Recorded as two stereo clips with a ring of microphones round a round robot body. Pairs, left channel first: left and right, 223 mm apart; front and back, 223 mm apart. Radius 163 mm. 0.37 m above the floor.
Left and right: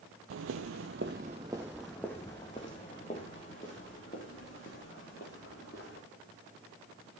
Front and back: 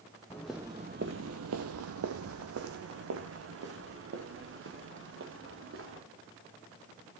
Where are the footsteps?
80° right, 0.6 m; by 6.0 s 155° left, 3.5 m.